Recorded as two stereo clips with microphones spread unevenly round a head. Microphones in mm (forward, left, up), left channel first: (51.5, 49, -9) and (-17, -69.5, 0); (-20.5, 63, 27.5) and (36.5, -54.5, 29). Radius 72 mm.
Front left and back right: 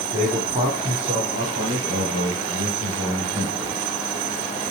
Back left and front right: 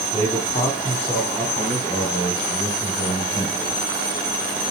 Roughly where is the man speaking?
Behind.